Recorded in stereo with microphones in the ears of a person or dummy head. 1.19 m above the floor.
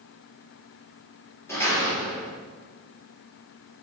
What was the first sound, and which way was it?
A door slam, 10° left (ahead or behind).